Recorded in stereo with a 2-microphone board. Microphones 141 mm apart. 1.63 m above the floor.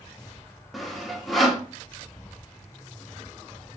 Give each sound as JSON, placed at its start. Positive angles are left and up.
{"t": 0.7, "sound": "sawing", "side_deg": 0, "distance_m": 0.9}